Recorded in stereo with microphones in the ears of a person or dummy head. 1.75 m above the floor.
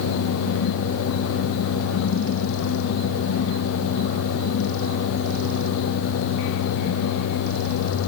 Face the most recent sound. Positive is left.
No sound to turn to.